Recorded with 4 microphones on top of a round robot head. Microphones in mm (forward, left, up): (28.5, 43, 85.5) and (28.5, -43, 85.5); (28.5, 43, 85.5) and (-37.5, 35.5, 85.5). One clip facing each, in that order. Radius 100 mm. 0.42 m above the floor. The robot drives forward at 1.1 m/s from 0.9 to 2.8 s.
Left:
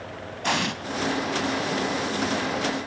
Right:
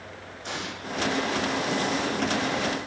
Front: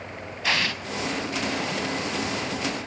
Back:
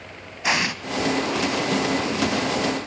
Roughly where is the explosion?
Behind left.